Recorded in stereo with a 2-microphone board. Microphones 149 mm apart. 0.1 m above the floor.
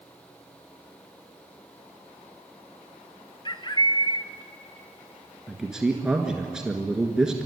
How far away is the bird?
About 0.7 m.